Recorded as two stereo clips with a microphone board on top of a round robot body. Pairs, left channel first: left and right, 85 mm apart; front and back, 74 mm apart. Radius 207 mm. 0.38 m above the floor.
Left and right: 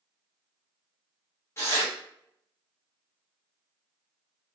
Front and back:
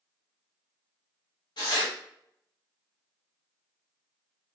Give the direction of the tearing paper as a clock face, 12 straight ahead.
11 o'clock.